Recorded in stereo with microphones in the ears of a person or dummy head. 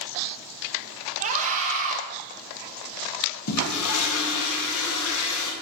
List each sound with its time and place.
1.2 s a scream: 40° right (ahead or behind), 1.8 m
3.5 s a toilet flushing: 80° left, 1.8 m